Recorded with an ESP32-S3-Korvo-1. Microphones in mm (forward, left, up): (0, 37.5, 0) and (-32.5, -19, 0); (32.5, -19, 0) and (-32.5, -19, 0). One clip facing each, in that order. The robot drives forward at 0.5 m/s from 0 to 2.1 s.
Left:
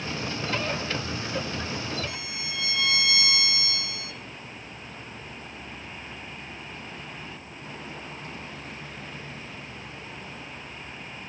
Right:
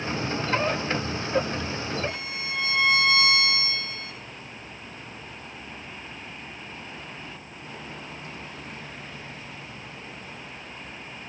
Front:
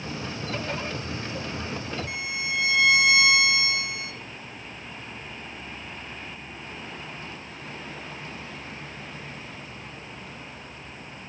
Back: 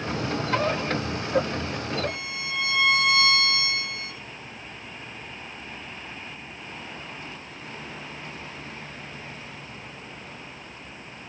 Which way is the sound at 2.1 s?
70° right.